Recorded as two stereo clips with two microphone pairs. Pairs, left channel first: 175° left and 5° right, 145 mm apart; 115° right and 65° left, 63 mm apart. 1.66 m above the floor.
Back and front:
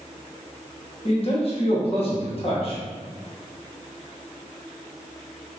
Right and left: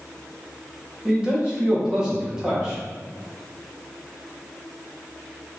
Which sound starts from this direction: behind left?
A man speaking, at 1.1 s.